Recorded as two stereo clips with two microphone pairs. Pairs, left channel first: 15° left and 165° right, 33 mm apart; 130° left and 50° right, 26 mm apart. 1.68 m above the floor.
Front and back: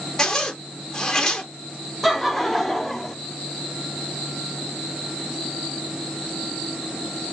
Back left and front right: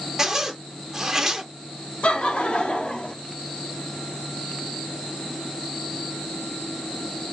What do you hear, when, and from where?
0.2 s a zipper: 30° right, 1.1 m
2.0 s laughter: 105° left, 1.1 m